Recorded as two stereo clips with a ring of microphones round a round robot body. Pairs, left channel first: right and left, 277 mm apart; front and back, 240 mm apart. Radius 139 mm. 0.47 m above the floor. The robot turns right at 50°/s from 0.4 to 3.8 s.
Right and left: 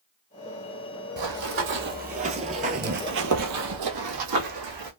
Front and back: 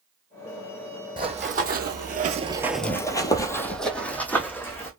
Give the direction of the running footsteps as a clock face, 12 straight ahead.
8 o'clock.